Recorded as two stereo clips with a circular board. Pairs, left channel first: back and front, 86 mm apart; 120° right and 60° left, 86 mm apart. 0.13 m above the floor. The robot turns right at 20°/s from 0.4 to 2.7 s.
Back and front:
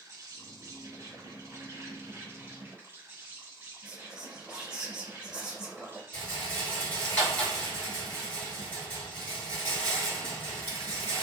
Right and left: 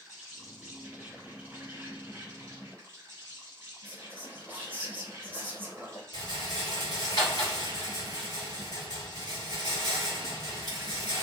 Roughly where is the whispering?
Ahead left.